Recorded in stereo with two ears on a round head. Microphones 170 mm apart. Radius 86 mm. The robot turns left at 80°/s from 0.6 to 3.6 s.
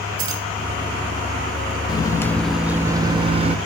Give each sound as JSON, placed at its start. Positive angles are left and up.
{"t": 0.2, "sound": "keys jangling", "side_deg": -85, "distance_m": 3.0}
{"t": 1.9, "sound": "a microwave", "azimuth_deg": 50, "distance_m": 0.6}